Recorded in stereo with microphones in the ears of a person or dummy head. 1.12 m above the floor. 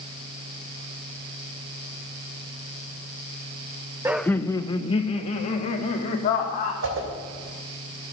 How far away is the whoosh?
About 3.5 m.